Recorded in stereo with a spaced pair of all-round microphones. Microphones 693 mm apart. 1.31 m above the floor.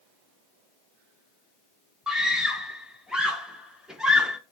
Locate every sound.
2.1 s a scream: centre (ahead or behind), 0.7 m